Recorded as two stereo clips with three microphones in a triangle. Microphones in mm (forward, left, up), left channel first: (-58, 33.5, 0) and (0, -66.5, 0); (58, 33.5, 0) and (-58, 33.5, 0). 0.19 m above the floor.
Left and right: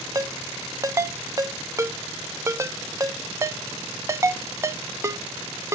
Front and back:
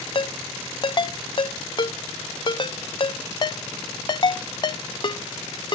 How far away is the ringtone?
About 0.6 m.